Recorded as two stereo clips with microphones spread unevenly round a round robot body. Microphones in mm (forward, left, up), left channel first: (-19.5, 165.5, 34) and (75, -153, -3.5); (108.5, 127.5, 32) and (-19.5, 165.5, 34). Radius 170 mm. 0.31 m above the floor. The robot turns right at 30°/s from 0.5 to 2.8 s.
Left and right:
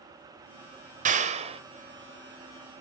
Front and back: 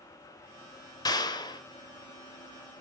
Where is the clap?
40° right, 0.9 m; by 1.6 s 25° right, 0.9 m.